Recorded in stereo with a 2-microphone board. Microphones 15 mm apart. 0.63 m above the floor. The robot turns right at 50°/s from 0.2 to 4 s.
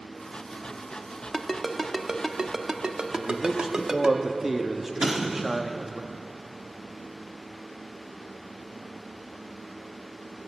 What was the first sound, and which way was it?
A ringtone, 5° left (ahead or behind).